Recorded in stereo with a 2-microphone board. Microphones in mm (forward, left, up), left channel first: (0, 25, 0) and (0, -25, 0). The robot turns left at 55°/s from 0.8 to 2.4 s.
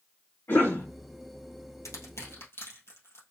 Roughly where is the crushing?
Left.